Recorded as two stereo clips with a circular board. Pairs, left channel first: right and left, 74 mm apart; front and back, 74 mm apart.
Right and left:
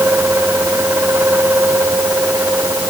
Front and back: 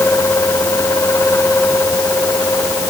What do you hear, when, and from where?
Only background noise.